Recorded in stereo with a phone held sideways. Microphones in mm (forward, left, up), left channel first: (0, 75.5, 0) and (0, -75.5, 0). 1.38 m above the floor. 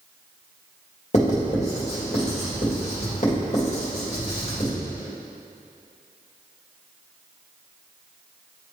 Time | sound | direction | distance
1.1 | writing | 50° left (ahead or behind) | 1.9 m